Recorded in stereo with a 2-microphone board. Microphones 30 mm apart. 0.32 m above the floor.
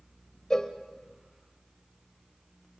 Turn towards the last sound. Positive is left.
turn(degrees=20)  # may be behind; listen again after turning